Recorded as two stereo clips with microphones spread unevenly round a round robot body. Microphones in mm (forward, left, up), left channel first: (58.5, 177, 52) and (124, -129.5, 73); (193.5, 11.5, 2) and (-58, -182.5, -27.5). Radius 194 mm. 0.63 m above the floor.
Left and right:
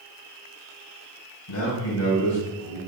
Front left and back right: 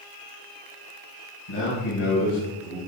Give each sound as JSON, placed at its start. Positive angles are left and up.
{"t": 1.5, "sound": "a man speaking", "azimuth_deg": 60, "distance_m": 3.0}